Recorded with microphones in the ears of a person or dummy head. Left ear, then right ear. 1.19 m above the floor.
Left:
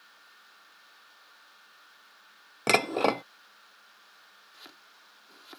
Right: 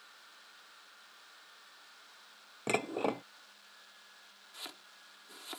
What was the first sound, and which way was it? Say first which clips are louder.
Dishes clattering: left 9 dB; 40° left (ahead or behind).